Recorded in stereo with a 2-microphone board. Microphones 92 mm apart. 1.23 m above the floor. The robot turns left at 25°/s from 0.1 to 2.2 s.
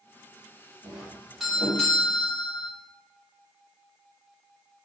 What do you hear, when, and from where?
0.8 s a doorbell: 160° right, 1.4 m; by 2.7 s 165° left, 1.4 m